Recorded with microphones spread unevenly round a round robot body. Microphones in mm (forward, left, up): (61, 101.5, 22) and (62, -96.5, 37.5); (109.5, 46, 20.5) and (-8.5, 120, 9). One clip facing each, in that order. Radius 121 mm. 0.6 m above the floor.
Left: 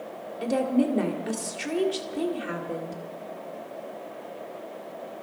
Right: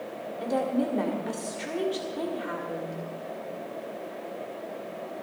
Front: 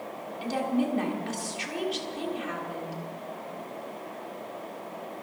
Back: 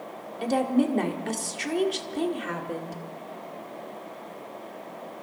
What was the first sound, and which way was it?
A woman speaking, 145° left.